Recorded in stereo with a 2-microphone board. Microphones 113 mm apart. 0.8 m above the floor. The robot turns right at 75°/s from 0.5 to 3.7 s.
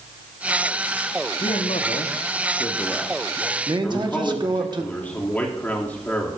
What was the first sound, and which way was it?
A man speaking, 50° left.